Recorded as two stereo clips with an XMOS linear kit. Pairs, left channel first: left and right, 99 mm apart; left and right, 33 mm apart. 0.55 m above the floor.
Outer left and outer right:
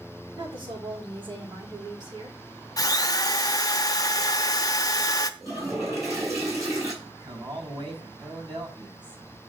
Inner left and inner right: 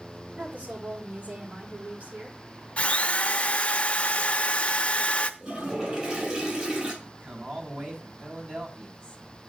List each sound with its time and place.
0.4 s a woman speaking: 50° right (ahead or behind), 1.8 m; by 2.4 s 45° right (ahead or behind), 2 m
2.8 s a drill: 35° left (ahead or behind), 0.7 m
5.4 s a toilet flushing: 30° right (ahead or behind), 3.5 m
7.0 s a man speaking: 50° right (ahead or behind), 4 m